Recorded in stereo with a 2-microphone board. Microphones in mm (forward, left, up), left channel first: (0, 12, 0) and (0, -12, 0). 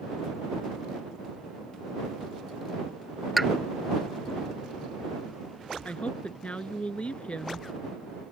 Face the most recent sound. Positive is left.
turn(degrees=60)  # may be behind; listen again after turning